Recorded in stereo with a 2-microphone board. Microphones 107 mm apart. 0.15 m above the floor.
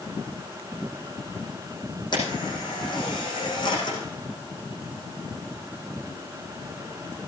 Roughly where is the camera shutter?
Left.